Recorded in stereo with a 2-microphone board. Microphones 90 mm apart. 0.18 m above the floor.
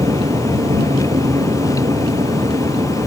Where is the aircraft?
70° right (ahead or behind); by 3.1 s 75° right (ahead or behind).